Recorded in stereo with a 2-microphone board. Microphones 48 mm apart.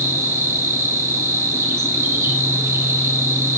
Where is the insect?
80° right, 4.5 m.